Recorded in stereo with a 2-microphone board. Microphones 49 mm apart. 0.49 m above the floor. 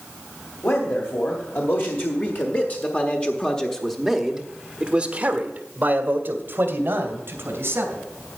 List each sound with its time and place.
0.6 s a man speaking: 65° left (ahead or behind), 2 m; by 8.0 s 60° right (ahead or behind), 2.5 m